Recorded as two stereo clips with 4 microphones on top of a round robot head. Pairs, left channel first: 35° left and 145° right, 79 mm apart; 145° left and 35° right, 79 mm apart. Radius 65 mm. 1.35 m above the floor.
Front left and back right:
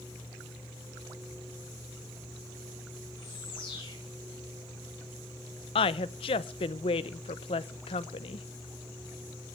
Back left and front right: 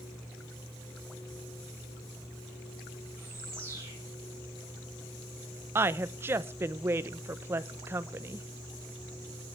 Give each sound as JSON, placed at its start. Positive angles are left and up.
{"t": 3.2, "sound": "a bird", "azimuth_deg": 25, "distance_m": 9.5}
{"t": 5.8, "sound": "a woman speaking", "azimuth_deg": 30, "distance_m": 0.8}